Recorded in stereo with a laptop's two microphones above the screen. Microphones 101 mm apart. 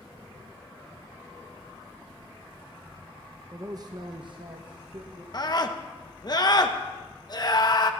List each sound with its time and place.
3.5 s a man speaking: 35° right (ahead or behind), 0.8 m; by 5.2 s 50° right (ahead or behind), 1.2 m
5.3 s a scream: 40° left (ahead or behind), 1.0 m